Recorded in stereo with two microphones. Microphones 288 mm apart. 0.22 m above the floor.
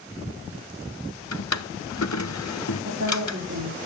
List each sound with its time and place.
1.3 s a drawer: 75° left (ahead or behind), 1.0 m
2.9 s a woman speaking: 70° right (ahead or behind), 4 m